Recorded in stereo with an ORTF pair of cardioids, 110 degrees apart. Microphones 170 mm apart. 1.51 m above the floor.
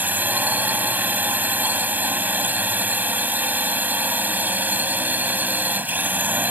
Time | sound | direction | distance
0.0 | a drone | 10° right | ?